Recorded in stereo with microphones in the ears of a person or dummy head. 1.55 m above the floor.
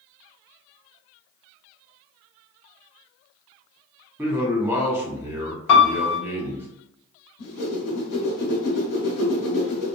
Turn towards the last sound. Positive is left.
turn(degrees=55)  # may be behind; listen again after turning